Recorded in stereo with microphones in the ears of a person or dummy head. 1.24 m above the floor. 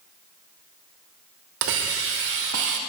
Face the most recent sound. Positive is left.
turn(degrees=-60)  # may be behind; listen again after turning